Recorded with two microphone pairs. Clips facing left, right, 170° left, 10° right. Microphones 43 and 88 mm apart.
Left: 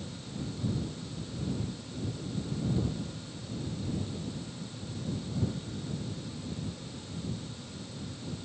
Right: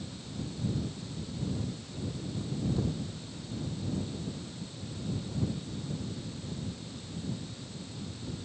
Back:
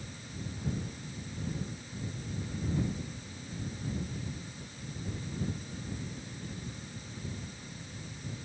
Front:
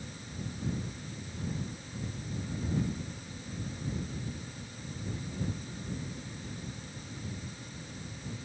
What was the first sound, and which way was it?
Only background noise.